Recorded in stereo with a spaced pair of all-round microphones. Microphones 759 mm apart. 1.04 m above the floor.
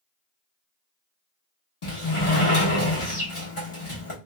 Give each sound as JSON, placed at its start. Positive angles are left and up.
{"t": 1.8, "sound": "a sliding door", "side_deg": 40, "distance_m": 1.0}